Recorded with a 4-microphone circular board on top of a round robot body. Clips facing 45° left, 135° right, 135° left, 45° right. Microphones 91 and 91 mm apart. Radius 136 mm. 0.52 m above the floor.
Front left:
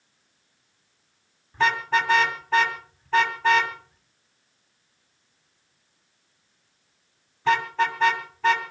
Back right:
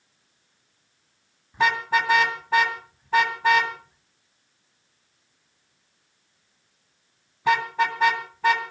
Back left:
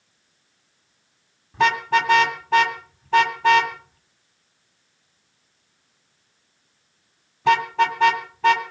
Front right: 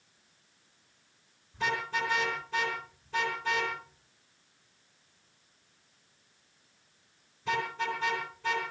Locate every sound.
1.5 s a car horn: 145° left, 2.5 m